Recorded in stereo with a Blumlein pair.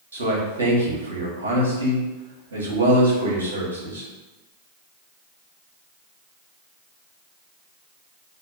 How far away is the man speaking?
About 1.4 m.